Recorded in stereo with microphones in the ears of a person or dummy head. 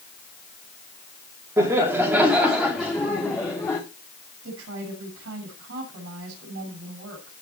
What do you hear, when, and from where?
1.6 s laughter: 15° right (ahead or behind), 2.5 m; by 3.8 s 15° left (ahead or behind), 2.5 m
4.4 s a woman speaking: 80° right, 6.5 m